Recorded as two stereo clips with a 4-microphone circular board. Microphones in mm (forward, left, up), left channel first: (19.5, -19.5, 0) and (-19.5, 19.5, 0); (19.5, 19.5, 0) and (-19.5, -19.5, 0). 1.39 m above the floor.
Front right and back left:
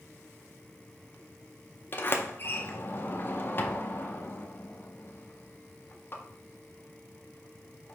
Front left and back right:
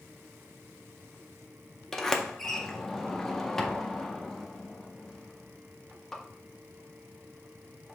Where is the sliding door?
35° right, 0.5 m.